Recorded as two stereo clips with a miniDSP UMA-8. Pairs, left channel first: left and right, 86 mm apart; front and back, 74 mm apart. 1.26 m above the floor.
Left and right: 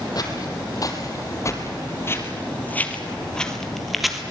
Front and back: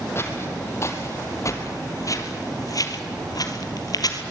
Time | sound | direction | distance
0.1 | footsteps | 55° left | 3 m